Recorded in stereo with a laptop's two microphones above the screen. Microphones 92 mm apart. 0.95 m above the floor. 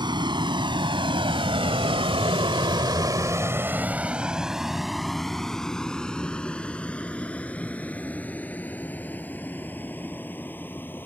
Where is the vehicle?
55° right (ahead or behind); by 11.1 s 20° left (ahead or behind).